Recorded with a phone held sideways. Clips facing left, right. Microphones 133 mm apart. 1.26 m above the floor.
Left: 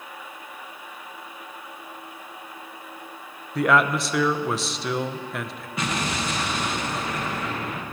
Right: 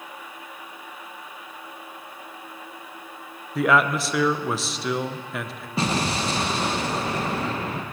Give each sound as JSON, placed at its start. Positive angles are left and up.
{"t": 3.5, "sound": "a man speaking", "side_deg": 0, "distance_m": 0.5}
{"t": 5.8, "sound": "an explosion", "side_deg": -30, "distance_m": 0.8}